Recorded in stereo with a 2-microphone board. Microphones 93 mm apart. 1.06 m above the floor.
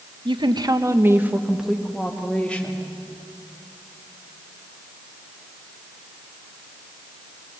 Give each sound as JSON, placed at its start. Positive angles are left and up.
{"t": 0.2, "sound": "a woman speaking", "side_deg": -60, "distance_m": 1.3}